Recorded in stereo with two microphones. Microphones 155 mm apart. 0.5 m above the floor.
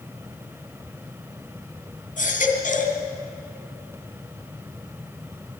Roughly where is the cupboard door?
I don't hear a cupboard door.